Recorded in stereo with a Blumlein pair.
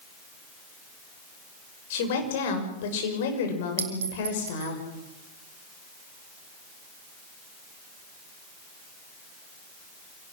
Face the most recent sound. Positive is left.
turn(degrees=-65)